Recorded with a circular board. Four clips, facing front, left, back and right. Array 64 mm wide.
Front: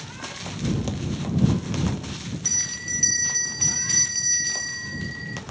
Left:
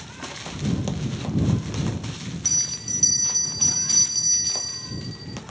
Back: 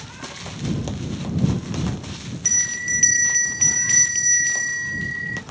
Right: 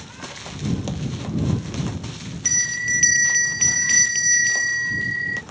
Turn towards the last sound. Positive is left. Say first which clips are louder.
# right 13 dB, back 7 dB
turn(degrees=-110)